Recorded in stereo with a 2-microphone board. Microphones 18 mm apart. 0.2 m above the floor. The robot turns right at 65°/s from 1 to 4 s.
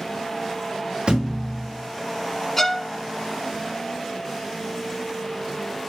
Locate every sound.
1.1 s a thud: 55° right, 2.5 m; by 1.7 s 15° right, 2.5 m
2.6 s a violin: 20° left (ahead or behind), 0.6 m; by 2.9 s 5° left (ahead or behind), 0.6 m